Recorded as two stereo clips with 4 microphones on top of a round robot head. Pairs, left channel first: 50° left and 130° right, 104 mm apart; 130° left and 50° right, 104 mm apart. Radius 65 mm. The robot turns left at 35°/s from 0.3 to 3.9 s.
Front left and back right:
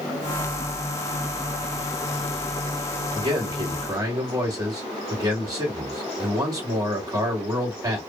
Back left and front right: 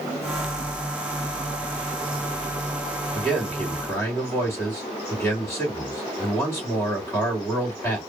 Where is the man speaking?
145° right, 1.7 m; by 8.0 s 170° right, 1.7 m.